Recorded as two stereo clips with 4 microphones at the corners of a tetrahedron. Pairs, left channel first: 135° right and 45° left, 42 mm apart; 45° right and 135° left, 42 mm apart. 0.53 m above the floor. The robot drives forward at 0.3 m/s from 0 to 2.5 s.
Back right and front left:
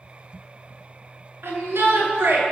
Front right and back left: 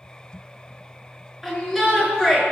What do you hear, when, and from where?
1.4 s a shout: 50° left, 6 m